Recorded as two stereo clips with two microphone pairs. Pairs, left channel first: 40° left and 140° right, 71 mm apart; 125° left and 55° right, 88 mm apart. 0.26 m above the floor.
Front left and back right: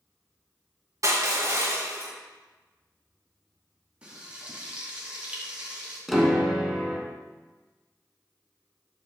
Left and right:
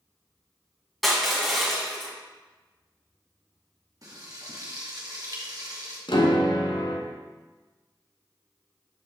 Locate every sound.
1.0 s crushing: 145° right, 1.8 m
4.0 s frying: 70° right, 2.5 m
6.1 s a piano: 130° left, 1.0 m